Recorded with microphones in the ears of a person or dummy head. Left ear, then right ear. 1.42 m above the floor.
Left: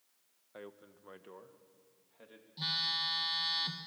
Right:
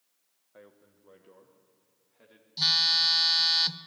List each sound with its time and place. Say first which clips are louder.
0.5 s a man speaking: left 4 dB; 85° left, 1.2 m; by 2.5 s 10° left (ahead or behind), 2.5 m
2.6 s a phone buzzing: right 10 dB; 40° right (ahead or behind), 0.8 m